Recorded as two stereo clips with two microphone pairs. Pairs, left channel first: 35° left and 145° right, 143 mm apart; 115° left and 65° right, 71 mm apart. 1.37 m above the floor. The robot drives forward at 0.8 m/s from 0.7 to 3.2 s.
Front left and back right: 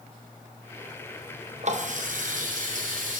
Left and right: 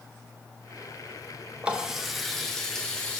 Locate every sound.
1.6 s a running tap: 130° right, 0.7 m; by 3.2 s 165° right, 1.7 m